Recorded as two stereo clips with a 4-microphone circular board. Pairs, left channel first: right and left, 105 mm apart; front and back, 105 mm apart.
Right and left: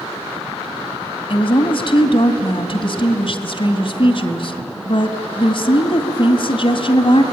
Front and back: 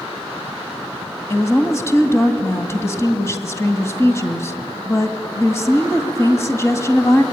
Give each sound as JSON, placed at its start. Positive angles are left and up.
{"t": 1.3, "sound": "a woman speaking", "azimuth_deg": -60, "distance_m": 2.0}